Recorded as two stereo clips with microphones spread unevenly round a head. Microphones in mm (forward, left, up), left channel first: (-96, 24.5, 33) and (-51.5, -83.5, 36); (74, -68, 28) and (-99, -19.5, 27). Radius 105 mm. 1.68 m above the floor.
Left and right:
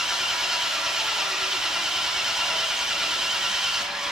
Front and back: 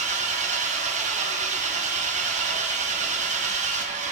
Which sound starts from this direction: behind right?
An engine running, at 0.0 s.